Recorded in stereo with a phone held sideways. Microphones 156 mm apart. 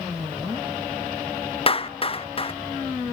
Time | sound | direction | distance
1.7 | a clap | 35° left (ahead or behind) | 0.6 m